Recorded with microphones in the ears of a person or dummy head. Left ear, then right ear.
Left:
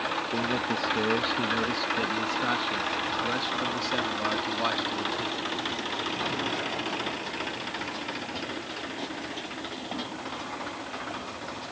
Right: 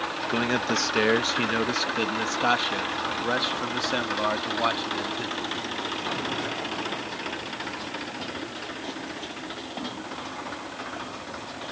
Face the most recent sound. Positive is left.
turn(degrees=-5)  # may be behind; listen again after turning